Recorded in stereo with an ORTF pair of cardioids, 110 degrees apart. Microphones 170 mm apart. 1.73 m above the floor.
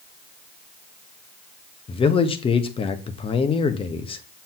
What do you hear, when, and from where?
1.9 s a man speaking: 35° left, 1.2 m